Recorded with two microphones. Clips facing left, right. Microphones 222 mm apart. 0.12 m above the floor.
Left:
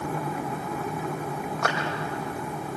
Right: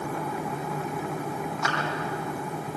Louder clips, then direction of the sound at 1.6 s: Left 5 dB; 60° left (ahead or behind).